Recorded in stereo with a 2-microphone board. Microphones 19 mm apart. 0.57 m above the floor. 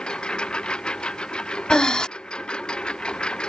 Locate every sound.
0.0 s a lawn mower: 60° left (ahead or behind)
1.7 s breathing: 50° left (ahead or behind)